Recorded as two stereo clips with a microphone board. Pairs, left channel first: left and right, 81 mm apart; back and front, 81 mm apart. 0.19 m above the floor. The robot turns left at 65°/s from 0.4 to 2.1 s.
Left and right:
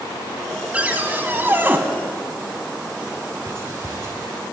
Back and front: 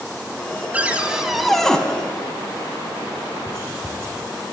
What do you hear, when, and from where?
0.7 s a cupboard door: 45° right, 0.6 m; by 1.8 s 110° right, 0.6 m
3.5 s whispering: 45° right, 1.7 m